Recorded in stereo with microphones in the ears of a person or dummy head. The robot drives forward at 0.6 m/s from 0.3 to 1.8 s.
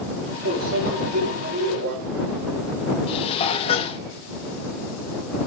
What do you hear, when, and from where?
0.5 s a microwave: 75° right (ahead or behind), 4 m; by 1.9 s 65° right (ahead or behind), 4 m
3.1 s dishes clattering: 30° left (ahead or behind), 1.4 m